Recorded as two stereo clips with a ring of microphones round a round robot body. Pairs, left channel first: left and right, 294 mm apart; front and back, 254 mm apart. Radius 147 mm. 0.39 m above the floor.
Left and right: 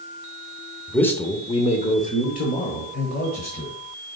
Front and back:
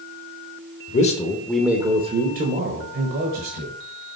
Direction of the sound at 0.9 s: 5° left.